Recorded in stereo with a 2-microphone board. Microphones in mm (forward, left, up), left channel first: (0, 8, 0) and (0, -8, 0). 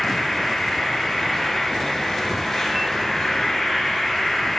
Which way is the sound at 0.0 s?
50° left (ahead or behind).